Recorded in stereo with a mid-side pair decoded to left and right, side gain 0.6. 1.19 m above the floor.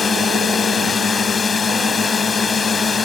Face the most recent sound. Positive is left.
turn(degrees=30)